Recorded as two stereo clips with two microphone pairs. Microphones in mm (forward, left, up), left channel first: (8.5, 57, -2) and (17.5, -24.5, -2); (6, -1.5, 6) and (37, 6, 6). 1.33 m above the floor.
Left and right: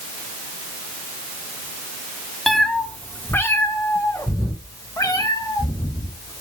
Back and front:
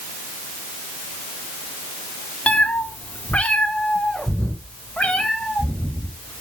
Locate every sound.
2.5 s a cat meowing: straight behind, 1.0 m; by 6.4 s 130° left, 3.5 m